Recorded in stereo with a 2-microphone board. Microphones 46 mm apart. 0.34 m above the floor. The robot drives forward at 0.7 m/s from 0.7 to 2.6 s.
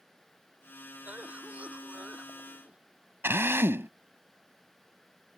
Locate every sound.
1.0 s a cough: 30° right (ahead or behind)
3.2 s a drill: 60° right (ahead or behind)